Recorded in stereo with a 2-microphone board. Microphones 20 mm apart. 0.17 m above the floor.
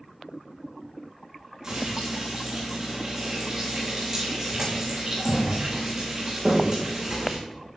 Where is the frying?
25° right (ahead or behind), 5 m.